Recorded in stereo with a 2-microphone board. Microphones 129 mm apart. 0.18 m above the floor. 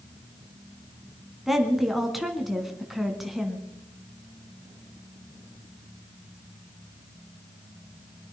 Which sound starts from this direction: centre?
A woman speaking, at 1.5 s.